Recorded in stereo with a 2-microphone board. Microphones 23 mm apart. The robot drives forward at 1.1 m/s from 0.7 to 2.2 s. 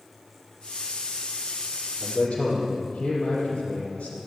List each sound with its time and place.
2.0 s a man speaking: 60° left (ahead or behind), 5.5 m